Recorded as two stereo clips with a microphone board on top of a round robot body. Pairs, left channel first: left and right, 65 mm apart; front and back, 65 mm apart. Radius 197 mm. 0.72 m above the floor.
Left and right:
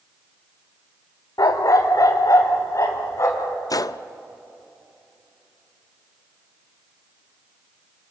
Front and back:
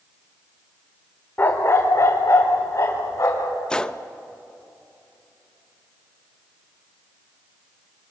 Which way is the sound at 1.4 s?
65° left.